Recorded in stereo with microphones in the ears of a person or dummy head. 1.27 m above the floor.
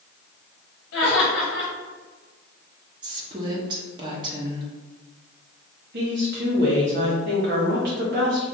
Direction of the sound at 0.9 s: 55° left (ahead or behind).